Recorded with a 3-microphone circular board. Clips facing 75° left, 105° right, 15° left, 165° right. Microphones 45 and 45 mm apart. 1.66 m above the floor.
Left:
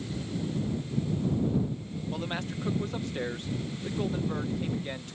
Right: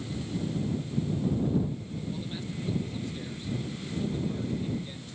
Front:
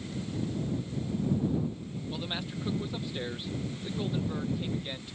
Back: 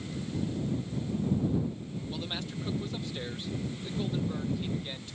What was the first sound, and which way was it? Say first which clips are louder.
A man speaking: left 3 dB, front 2 dB; 95° left.